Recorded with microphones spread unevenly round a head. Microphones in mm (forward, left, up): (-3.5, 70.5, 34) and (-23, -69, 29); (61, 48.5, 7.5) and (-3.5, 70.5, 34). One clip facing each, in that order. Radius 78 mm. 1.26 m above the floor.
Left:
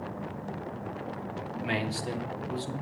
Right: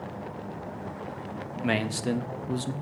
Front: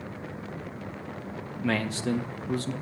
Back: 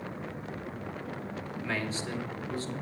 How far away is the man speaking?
About 1.2 m.